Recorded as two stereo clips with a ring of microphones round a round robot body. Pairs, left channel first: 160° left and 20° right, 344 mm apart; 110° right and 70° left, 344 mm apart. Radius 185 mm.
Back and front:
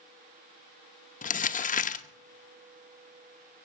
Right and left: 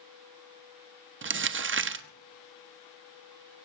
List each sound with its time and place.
1.2 s crumpling: 100° left, 1.0 m